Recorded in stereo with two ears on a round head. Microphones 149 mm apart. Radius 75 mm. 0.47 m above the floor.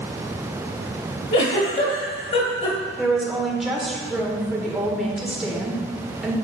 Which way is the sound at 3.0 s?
Centre (ahead or behind).